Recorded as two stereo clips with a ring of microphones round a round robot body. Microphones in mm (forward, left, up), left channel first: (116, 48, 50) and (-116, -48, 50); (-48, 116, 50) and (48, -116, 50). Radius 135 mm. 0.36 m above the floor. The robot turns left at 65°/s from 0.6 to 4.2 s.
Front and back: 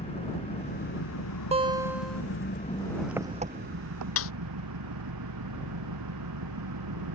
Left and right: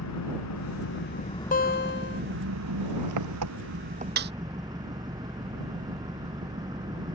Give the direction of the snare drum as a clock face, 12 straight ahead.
12 o'clock.